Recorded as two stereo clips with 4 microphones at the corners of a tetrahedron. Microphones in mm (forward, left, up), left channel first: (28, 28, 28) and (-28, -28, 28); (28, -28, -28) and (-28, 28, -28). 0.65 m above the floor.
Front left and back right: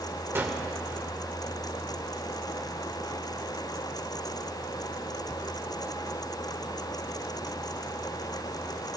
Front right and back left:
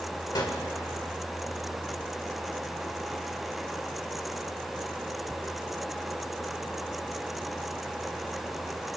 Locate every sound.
0.3 s a gunshot: 75° right, 1.4 m